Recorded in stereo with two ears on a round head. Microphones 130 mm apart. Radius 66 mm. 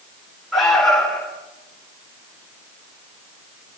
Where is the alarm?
5° left (ahead or behind), 8 m.